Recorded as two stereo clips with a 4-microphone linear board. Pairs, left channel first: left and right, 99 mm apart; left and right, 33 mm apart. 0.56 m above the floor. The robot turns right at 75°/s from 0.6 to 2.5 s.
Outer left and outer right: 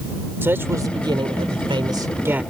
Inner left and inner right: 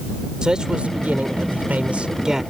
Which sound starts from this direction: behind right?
A man speaking, at 0.4 s.